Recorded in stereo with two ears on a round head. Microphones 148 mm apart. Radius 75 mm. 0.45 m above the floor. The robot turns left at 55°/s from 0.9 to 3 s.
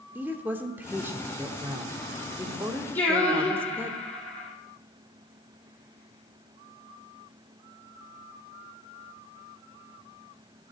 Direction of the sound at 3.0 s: 10° left (ahead or behind).